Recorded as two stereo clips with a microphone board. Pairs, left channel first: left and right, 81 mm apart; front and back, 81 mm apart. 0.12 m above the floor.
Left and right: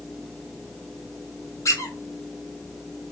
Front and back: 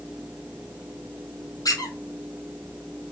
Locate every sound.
1.6 s a squeak: 40° left, 0.9 m